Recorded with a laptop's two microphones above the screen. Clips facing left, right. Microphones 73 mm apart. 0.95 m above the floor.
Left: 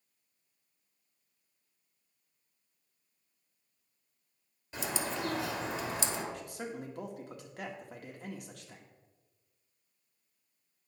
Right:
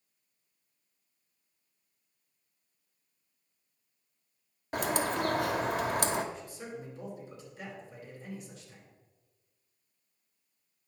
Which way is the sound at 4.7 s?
55° right (ahead or behind).